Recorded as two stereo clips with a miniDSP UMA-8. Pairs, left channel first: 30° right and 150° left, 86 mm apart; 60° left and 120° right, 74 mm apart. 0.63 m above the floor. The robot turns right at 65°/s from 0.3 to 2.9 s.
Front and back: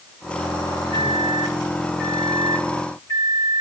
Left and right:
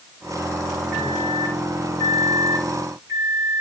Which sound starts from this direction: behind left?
A microwave, at 0.9 s.